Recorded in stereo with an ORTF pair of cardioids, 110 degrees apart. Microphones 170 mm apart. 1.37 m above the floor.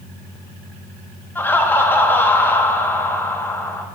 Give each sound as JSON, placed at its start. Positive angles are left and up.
{"t": 1.4, "sound": "laughter", "azimuth_deg": 10, "distance_m": 0.6}